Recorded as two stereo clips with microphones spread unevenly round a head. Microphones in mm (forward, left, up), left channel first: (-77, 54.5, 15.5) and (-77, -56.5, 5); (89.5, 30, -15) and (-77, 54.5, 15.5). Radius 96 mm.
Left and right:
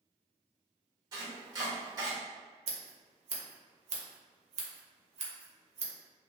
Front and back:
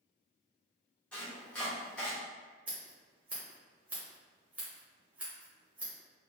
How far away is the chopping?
About 1.0 m.